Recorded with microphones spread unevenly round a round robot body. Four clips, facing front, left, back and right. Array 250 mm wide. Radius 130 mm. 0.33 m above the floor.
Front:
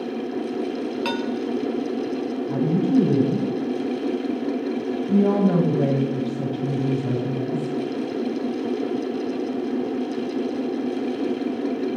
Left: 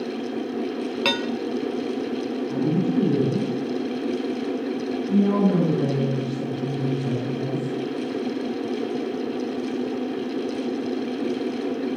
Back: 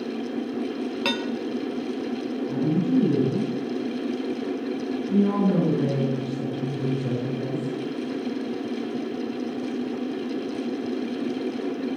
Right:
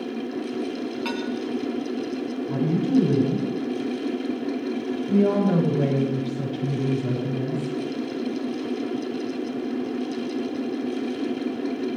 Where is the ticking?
No ticking in this recording.